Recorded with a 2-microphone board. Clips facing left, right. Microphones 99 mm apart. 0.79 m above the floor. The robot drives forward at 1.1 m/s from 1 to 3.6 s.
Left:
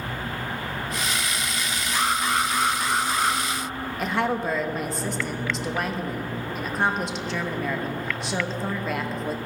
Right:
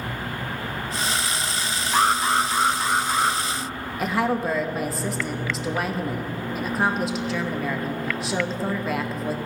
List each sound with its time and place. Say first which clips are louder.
1.9 s an alarm: right 4 dB; 50° right (ahead or behind), 0.7 m; by 3.4 s 15° right (ahead or behind), 2 m
4.0 s a woman speaking: right 2 dB; 5° right (ahead or behind), 0.7 m